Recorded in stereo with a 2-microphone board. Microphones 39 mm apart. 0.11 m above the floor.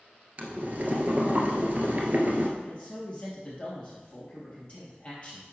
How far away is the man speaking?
About 3 m.